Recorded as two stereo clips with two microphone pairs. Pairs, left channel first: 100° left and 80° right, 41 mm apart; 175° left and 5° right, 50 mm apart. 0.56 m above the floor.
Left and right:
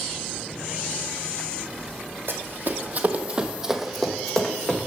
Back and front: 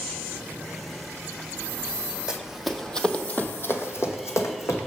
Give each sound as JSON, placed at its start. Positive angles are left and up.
{"t": 2.3, "sound": "running footsteps", "azimuth_deg": -80, "distance_m": 1.1}